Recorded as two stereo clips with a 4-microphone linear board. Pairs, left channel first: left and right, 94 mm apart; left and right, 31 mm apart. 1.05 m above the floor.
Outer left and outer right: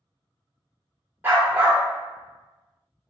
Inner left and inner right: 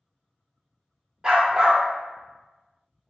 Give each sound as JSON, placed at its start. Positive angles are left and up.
{"t": 1.2, "sound": "a dog barking", "side_deg": -20, "distance_m": 0.8}